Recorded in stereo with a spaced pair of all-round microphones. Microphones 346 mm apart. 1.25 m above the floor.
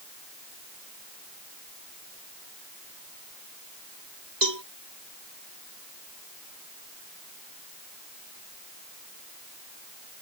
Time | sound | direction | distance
4.4 | a cowbell | 75° right (ahead or behind) | ?